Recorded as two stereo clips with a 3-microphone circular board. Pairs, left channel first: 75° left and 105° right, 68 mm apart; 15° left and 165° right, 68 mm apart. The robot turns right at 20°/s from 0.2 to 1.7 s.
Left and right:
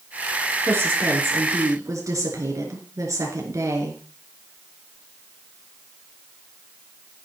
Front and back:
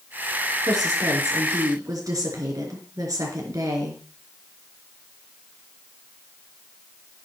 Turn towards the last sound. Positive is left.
turn(degrees=-140)